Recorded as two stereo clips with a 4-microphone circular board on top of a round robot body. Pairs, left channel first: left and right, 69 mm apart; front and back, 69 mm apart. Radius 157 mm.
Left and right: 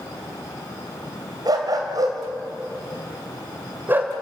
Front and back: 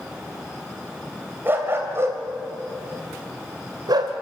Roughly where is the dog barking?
Behind right.